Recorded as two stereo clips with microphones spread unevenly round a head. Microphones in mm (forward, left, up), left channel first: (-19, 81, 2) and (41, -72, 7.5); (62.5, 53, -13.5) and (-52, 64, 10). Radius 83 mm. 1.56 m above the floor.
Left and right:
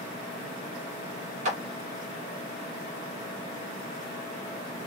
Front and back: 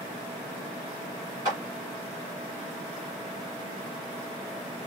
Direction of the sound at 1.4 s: 120° right.